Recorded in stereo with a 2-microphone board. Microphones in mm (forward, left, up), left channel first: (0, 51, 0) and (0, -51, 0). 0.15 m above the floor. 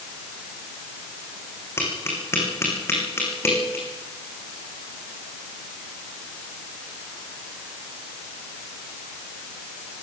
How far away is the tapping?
About 7 m.